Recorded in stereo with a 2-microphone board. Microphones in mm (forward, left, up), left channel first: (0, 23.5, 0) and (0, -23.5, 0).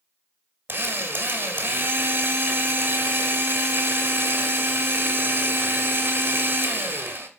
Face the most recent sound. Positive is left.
turn(degrees=-45)  # may be behind; listen again after turning